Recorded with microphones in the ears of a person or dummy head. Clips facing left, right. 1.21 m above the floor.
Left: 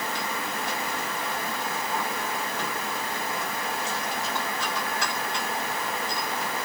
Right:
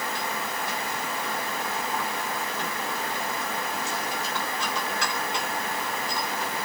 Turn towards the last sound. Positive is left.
No sound to turn to.